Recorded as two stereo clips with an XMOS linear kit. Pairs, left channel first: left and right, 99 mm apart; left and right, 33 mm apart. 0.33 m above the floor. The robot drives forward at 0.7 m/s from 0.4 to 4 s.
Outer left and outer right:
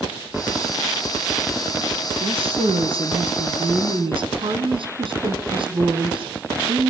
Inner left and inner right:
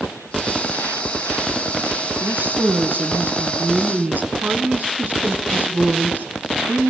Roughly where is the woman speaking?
Right.